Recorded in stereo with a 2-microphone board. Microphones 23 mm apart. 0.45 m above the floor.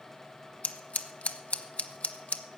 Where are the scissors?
85° left, 0.9 m.